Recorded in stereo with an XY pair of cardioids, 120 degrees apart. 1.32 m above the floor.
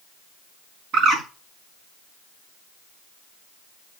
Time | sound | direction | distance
0.9 | a bird | 65° right | 6.5 m